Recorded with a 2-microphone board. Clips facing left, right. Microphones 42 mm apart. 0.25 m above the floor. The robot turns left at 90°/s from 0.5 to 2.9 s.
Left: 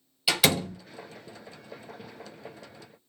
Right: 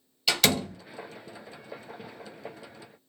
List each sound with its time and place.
0.3 s a door slam: 5° left (ahead or behind), 1.0 m; by 0.8 s 5° right (ahead or behind), 1.0 m